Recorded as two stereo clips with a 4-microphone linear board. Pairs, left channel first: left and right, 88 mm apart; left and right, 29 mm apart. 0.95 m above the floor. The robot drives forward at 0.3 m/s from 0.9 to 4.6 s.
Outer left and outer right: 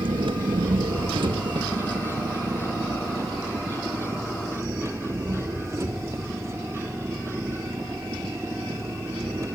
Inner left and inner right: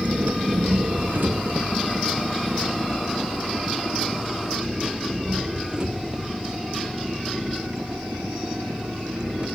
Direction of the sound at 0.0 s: 60° right (ahead or behind).